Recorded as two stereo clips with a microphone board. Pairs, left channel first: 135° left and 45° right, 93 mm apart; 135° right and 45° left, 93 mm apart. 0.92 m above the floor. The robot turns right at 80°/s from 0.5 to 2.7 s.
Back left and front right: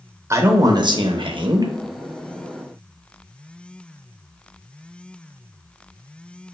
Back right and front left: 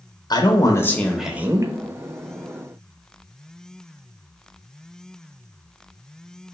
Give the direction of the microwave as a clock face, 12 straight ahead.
No microwave in this recording.